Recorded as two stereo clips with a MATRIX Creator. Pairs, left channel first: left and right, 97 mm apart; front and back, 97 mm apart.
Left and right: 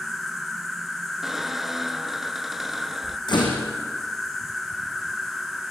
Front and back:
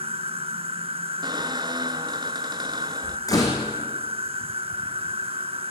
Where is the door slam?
50° left, 6 m.